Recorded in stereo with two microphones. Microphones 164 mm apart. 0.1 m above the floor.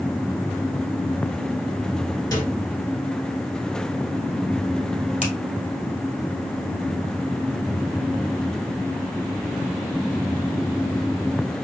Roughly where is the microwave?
Left.